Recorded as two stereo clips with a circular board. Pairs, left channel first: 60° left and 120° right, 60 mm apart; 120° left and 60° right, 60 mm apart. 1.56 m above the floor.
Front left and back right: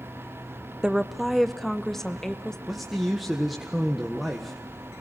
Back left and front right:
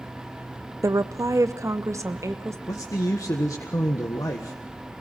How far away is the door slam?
No door slam in this recording.